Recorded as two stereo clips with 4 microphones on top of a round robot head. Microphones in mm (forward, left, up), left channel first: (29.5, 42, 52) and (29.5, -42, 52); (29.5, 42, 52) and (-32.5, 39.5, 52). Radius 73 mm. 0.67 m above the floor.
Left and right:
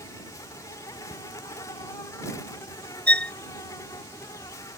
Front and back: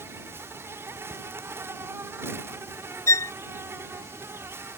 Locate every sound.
0.0 s an insect: 140° left
1.1 s a cupboard door: 130° left
3.1 s a violin: 15° left